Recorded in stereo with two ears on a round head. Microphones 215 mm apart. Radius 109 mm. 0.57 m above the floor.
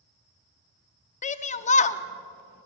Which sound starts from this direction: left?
A shout, at 1.2 s.